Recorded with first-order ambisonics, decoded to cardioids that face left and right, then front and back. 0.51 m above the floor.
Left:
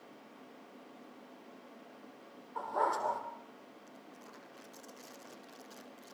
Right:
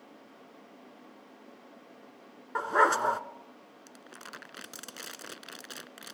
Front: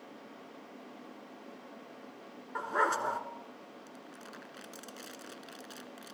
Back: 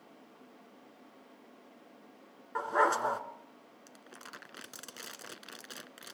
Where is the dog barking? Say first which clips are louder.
Right 8 dB, back 2 dB; 95° right, 1.5 m.